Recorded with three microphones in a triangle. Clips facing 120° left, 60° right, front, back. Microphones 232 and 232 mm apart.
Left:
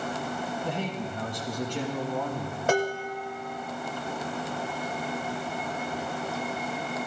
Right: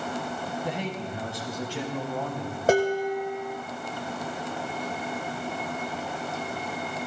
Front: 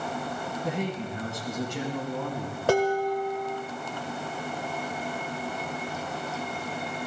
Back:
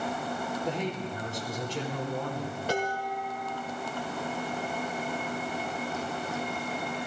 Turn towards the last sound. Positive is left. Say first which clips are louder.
# right 5 dB, front 10 dB
turn(degrees=-5)